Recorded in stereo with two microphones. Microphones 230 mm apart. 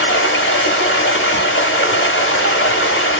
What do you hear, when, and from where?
0.0 s running water: 65° left (ahead or behind), 1.0 m